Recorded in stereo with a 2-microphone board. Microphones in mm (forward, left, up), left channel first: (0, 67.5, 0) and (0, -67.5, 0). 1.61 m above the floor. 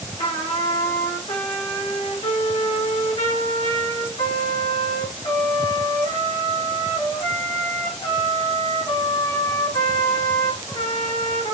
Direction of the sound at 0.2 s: 50° left (ahead or behind).